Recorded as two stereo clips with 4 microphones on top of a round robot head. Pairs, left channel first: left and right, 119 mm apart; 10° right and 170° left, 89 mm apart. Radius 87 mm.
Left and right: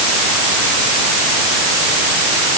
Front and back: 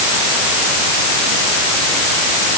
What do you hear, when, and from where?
Only background noise.